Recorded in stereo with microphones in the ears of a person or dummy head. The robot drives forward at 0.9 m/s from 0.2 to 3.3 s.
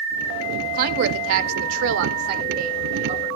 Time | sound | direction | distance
0.7 | a woman speaking | 50° right (ahead or behind) | 1.3 m